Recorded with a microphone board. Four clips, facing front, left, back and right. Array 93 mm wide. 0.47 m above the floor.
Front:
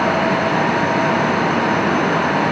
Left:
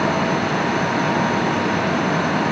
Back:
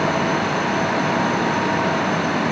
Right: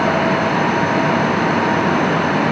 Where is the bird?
I don't hear a bird.